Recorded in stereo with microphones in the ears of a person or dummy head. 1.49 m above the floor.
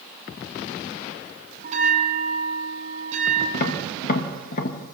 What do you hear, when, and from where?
1.6 s a bell: 45° right (ahead or behind), 4 m
3.5 s tapping: 45° left (ahead or behind), 2 m